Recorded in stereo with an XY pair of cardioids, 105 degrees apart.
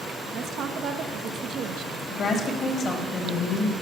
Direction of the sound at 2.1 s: 55° left.